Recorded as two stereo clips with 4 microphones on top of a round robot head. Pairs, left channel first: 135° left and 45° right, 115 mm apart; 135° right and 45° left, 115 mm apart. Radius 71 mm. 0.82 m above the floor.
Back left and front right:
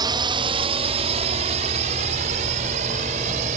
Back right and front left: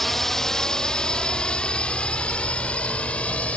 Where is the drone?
50° right; by 3.6 s 60° right.